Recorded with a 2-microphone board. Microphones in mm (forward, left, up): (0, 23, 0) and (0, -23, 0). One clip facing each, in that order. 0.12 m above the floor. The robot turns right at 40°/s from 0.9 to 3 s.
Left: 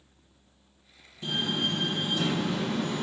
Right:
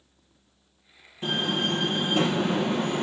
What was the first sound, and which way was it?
A door slam, 135° right.